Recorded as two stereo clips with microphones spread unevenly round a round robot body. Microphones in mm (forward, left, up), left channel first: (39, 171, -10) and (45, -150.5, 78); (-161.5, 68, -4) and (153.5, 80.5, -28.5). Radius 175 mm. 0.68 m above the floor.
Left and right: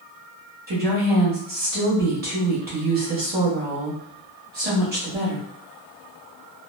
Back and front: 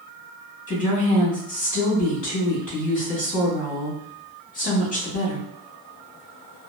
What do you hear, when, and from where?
0.7 s a woman speaking: 145° right, 1.1 m